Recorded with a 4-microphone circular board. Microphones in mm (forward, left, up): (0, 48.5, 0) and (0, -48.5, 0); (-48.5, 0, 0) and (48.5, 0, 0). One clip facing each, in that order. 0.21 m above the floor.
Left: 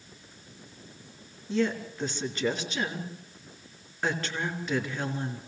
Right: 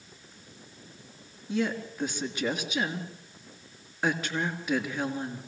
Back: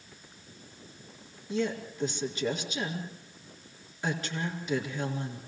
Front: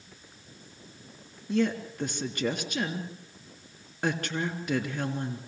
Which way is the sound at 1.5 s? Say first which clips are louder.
Left 2 dB, front 4 dB; 10° right.